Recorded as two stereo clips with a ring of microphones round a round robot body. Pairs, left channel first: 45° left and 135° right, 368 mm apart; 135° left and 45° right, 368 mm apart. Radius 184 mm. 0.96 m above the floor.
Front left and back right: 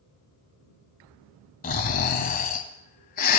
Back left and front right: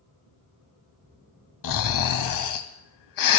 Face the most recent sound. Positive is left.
turn(degrees=110)